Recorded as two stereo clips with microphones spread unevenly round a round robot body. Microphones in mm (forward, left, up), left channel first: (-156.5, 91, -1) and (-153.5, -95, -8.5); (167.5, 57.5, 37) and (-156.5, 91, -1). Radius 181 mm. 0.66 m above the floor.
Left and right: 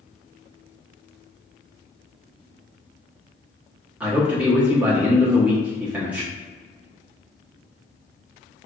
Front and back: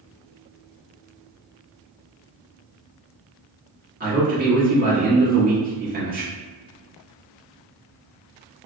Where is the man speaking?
165° right, 1.4 m.